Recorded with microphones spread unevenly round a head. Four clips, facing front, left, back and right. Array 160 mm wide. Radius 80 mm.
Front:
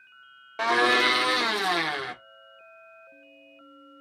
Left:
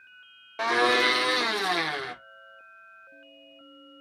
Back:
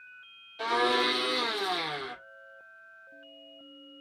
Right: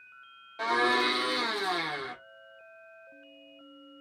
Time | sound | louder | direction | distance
0.6 | a blender | left 3 dB, front 4 dB | 30° left | 0.9 m